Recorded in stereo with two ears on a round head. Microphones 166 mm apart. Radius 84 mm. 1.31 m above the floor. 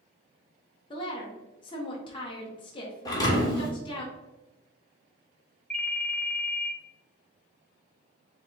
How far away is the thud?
About 1.1 m.